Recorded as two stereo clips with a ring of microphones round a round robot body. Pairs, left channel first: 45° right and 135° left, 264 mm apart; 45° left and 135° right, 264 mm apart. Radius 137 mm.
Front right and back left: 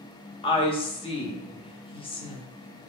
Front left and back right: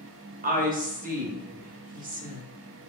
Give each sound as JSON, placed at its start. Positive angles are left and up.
{"t": 0.4, "sound": "a woman speaking", "azimuth_deg": -100, "distance_m": 0.8}